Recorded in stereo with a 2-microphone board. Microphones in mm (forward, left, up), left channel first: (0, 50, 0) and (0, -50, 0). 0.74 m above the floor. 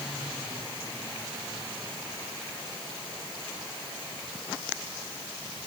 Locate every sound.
Only background noise.